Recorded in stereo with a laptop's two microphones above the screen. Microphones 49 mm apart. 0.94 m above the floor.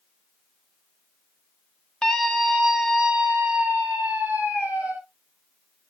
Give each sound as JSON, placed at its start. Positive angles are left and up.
{"t": 2.0, "sound": "a scream", "side_deg": 10, "distance_m": 1.6}